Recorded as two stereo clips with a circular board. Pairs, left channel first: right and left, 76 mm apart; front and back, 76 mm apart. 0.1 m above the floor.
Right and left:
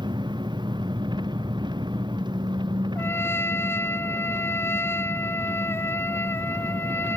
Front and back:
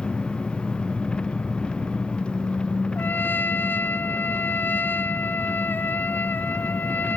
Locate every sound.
0.0 s an engine running: 75° left
3.0 s a trumpet: 50° right